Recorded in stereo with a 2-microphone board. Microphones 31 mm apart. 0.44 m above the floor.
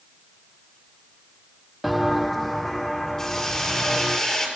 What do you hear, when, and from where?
1.8 s footsteps: 5° right (ahead or behind), 0.6 m; by 4.2 s 10° left (ahead or behind), 1.8 m
3.2 s a hiss: 15° left (ahead or behind), 6.5 m